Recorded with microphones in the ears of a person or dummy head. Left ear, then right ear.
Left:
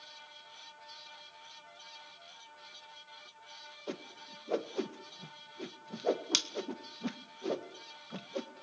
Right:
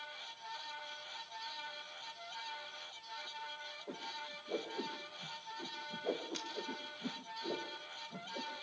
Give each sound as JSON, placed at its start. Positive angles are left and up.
{"t": 3.9, "sound": "a whoosh", "side_deg": 90, "distance_m": 1.7}